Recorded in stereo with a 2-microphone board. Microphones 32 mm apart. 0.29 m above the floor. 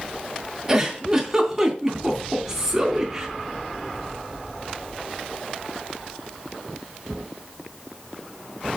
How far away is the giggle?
About 3 m.